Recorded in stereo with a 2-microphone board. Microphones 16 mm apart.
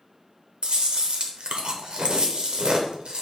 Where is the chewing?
65° right (ahead or behind), 0.8 m.